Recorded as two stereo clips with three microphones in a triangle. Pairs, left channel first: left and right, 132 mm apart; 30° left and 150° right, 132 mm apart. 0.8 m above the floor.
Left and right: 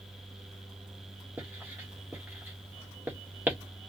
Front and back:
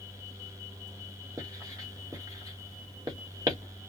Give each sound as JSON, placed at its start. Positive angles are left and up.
{"t": 1.4, "sound": "writing", "azimuth_deg": -145, "distance_m": 1.1}